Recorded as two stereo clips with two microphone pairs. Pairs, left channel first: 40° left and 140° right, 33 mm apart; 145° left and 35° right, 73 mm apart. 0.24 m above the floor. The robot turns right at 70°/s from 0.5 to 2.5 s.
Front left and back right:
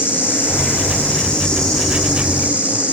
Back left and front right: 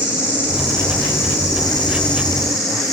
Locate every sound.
0.0 s an insect: 40° left, 9.5 m; by 2.9 s straight behind, 9.5 m